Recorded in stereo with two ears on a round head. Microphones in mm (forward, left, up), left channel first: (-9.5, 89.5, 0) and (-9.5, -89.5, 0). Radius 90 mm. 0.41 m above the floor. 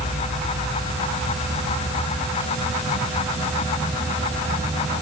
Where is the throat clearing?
No throat clearing in this recording.